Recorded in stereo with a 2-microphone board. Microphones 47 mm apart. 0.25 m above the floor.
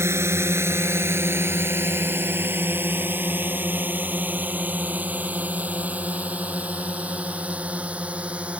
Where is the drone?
70° right (ahead or behind); by 8.6 s 30° right (ahead or behind).